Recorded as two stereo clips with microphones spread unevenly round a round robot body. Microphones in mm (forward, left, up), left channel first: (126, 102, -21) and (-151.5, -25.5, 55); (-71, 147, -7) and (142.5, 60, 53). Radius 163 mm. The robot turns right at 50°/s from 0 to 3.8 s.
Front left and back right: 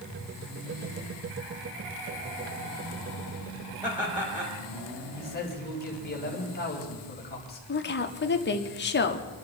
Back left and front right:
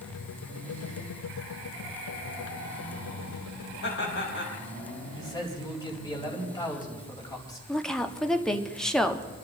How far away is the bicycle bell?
No bicycle bell in this recording.